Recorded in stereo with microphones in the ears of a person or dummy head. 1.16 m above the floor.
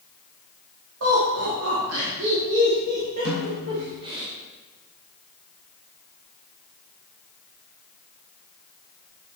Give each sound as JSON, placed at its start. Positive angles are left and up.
{"t": 1.0, "sound": "laughter", "side_deg": -80, "distance_m": 2.0}
{"t": 3.2, "sound": "a snare drum", "side_deg": -65, "distance_m": 4.0}